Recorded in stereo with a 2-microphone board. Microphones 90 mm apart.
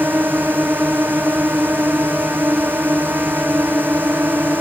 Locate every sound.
0.0 s a drone: 20° right (ahead or behind)